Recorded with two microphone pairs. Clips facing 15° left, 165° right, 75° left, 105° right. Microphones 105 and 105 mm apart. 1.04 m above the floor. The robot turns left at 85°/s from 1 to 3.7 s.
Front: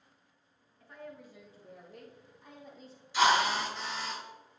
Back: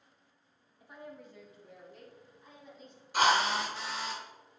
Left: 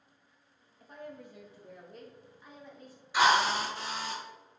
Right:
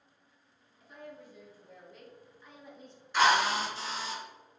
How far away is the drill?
About 2.5 m.